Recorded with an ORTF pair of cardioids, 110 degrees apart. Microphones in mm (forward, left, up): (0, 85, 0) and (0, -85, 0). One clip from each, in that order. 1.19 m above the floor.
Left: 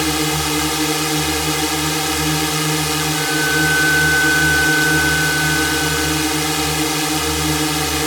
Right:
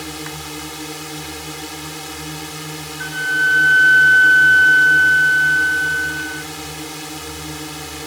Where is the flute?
25° right.